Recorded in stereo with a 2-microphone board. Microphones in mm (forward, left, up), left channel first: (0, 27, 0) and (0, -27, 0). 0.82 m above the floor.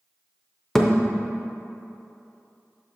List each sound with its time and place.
0.8 s a thud: 5° left (ahead or behind), 0.6 m